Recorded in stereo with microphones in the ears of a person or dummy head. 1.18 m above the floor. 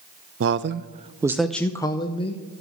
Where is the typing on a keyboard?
I don't hear typing on a keyboard.